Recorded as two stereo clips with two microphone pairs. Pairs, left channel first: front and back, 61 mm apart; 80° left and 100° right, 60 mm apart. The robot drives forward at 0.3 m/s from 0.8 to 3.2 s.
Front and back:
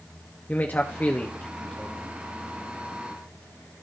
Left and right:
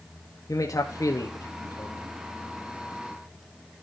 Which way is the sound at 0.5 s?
60° left.